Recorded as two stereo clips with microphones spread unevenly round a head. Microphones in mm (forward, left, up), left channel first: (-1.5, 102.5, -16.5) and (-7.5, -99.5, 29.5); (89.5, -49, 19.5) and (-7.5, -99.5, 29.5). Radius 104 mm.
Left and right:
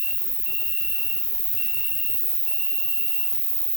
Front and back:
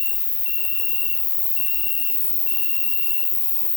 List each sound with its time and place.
0.0 s an insect: 15° left, 1.7 m